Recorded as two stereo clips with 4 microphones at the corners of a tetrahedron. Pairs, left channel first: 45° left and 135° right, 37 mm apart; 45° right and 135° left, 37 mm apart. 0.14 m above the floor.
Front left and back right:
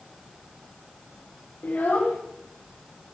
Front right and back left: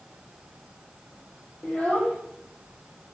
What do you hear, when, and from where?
1.6 s a child speaking: 5° left, 2.5 m